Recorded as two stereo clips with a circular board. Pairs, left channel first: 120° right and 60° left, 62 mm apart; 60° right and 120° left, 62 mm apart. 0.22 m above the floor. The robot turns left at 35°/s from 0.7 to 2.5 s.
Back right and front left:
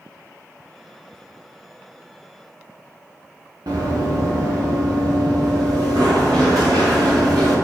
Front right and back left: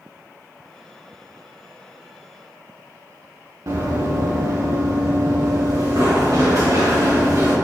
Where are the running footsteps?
80° left, 1.3 m; by 7.5 s 85° left, 3.5 m.